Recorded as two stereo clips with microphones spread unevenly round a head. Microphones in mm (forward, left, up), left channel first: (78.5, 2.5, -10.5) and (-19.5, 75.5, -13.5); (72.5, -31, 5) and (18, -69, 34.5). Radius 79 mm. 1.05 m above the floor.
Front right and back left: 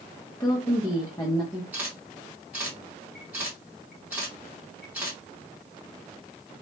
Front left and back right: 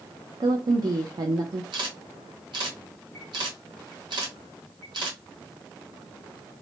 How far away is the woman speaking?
About 0.7 m.